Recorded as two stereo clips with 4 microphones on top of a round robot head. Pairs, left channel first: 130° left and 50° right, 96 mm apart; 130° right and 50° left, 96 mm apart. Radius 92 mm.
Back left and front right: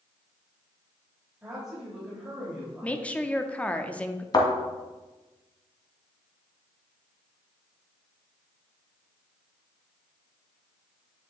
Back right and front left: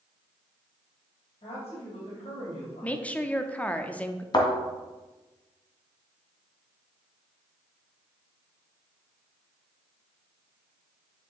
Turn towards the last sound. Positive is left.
turn(degrees=180)